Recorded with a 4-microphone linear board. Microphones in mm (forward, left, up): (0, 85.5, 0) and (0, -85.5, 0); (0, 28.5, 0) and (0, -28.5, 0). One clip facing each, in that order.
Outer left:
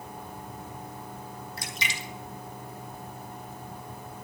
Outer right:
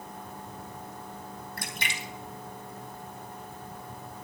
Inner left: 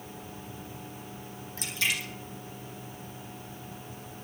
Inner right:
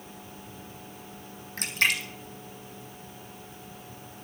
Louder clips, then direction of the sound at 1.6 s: Even, inner right 5 dB; 55° right (ahead or behind).